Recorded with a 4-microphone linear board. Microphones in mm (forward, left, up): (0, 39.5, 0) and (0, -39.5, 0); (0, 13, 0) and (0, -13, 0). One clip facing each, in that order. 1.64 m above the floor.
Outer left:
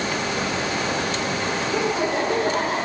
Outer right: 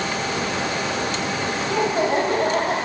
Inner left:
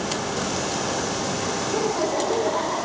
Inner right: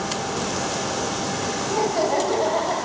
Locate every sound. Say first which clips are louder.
1.7 s laughter: outer right 4 dB, inner right 3 dB; 60° right (ahead or behind), 5 m